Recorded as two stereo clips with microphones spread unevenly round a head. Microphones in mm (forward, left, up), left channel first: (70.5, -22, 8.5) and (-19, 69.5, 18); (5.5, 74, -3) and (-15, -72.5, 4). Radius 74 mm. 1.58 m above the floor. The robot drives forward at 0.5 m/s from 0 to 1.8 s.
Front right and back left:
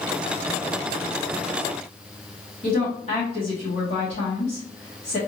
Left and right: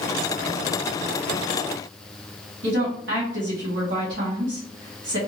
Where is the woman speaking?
100° right, 1.8 m.